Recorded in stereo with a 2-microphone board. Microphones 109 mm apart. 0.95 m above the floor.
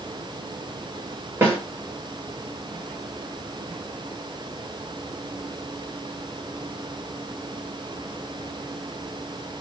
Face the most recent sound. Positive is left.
turn(degrees=-20)  # may be behind; listen again after turning